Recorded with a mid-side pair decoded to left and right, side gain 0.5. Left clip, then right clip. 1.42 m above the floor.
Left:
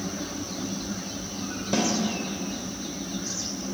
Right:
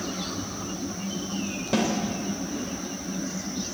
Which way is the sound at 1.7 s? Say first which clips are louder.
Even; 10° right.